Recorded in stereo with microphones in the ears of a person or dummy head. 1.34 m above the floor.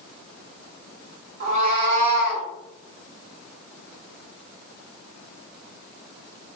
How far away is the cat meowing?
About 0.9 m.